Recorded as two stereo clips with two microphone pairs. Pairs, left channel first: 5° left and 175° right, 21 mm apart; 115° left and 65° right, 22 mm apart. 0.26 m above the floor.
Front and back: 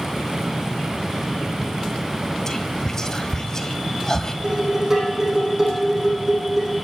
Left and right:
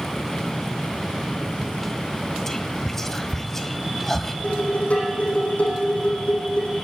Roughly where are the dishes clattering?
Behind left.